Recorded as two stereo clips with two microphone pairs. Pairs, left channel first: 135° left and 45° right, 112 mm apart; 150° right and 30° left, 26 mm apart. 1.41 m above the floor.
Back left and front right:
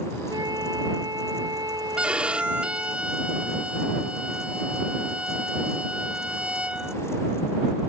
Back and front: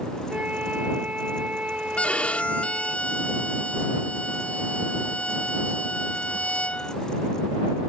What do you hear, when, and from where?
0.3 s a flute: 5° left
2.0 s a violin: 125° right